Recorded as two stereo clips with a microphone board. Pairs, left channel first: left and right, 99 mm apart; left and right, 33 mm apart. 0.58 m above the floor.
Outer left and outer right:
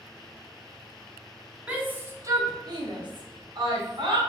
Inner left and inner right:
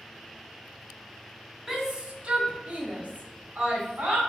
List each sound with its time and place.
1.7 s a shout: 15° right (ahead or behind), 1.0 m; by 4.2 s 50° right (ahead or behind), 1.9 m